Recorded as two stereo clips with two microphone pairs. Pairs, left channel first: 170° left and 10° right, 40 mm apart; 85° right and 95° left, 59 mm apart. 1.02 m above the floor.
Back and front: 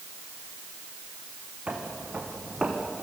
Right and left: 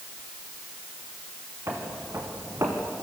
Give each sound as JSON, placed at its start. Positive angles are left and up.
{"t": 1.7, "sound": "footsteps", "azimuth_deg": 50, "distance_m": 4.5}